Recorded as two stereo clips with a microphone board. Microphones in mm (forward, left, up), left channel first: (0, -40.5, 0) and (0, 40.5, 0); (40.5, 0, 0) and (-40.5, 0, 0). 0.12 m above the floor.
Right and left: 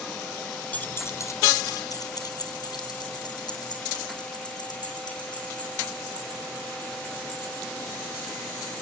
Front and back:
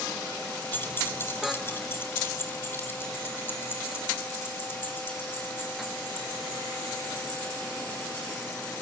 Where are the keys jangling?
40° right, 0.9 m; by 8.8 s 65° right, 8.5 m.